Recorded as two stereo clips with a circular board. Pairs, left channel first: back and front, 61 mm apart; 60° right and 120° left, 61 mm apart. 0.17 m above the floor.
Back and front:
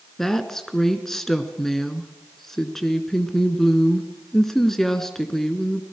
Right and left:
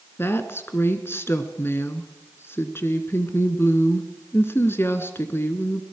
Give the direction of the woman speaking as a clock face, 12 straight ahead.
3 o'clock.